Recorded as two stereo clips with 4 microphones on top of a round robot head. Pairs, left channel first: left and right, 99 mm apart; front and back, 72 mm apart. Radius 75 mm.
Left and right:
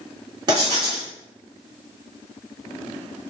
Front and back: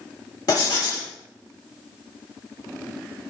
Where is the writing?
45° right, 2 m.